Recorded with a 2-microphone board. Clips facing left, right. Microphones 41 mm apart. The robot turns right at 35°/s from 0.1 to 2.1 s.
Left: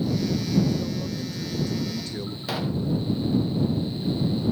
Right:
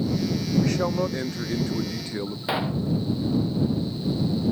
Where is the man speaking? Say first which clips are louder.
Right 6 dB; 80° right; by 2.4 s 25° right.